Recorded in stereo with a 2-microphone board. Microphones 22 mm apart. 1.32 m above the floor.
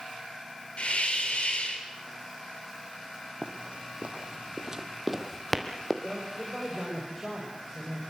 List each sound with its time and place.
0.8 s a hiss: 55° left (ahead or behind), 3.5 m
3.4 s running footsteps: 60° right (ahead or behind), 2.5 m; by 5.9 s 15° left (ahead or behind), 2.5 m
6.0 s a man speaking: 5° right (ahead or behind), 5.5 m